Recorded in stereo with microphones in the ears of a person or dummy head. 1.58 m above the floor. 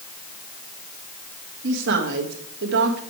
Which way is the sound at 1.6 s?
65° right (ahead or behind).